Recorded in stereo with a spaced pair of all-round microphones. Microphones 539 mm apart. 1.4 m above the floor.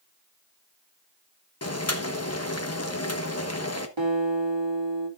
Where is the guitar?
55° right (ahead or behind), 2.5 m.